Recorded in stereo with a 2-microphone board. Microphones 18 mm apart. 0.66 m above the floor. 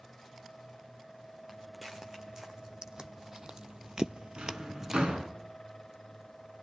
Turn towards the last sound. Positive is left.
turn(degrees=-65)  # may be behind; listen again after turning